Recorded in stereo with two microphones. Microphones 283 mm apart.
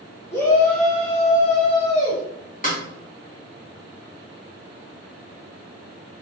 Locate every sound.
0.3 s a shout: 10° left (ahead or behind), 3 m; by 2.2 s 35° left (ahead or behind), 3 m
2.6 s a snare drum: 30° left (ahead or behind), 2.5 m